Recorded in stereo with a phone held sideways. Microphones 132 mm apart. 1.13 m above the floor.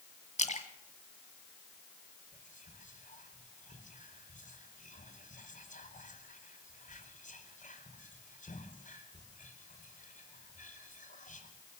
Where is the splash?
60° left (ahead or behind), 1.8 m.